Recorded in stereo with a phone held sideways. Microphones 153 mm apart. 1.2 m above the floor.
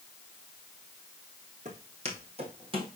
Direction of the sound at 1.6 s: 45° right (ahead or behind).